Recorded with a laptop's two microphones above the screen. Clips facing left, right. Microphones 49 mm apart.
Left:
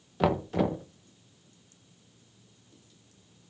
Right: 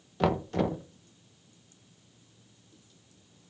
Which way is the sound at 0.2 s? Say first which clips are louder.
Left 1 dB; 5° left (ahead or behind).